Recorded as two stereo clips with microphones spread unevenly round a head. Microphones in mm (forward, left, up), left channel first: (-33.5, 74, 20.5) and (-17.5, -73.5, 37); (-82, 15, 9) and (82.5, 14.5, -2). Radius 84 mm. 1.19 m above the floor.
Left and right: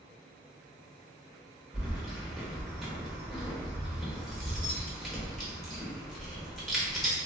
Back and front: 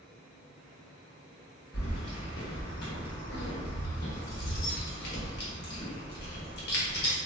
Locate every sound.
1.7 s keys jangling: 170° right, 0.8 m